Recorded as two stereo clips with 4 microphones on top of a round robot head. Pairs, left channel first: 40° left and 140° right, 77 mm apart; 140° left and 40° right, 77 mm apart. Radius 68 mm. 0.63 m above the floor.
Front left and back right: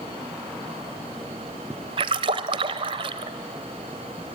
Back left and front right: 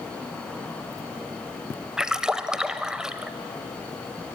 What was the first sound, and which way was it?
A splash, 120° right.